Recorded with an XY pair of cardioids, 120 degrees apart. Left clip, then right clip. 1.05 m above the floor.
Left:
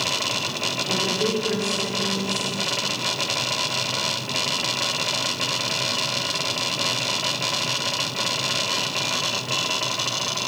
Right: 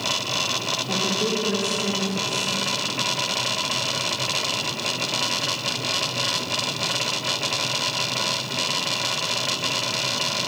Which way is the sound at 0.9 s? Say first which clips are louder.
Left 1 dB; 10° left.